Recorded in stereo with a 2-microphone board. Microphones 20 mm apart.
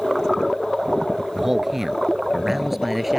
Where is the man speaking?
15° right (ahead or behind); by 3.2 s 5° right (ahead or behind).